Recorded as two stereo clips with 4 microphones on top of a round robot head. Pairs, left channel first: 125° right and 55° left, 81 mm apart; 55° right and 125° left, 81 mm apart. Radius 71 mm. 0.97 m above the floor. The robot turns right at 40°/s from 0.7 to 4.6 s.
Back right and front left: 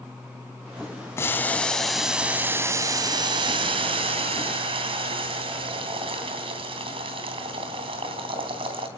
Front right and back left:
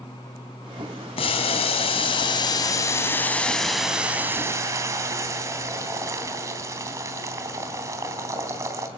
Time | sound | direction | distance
1.2 | boiling | 65° right | 3 m